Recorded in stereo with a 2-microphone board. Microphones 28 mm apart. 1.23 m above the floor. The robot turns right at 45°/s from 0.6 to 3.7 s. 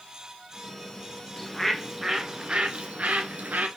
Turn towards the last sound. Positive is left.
turn(degrees=-95)